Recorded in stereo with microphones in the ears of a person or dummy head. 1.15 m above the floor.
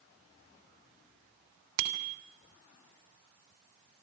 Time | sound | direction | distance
1.8 | a bicycle bell | 70° right (ahead or behind) | 3 m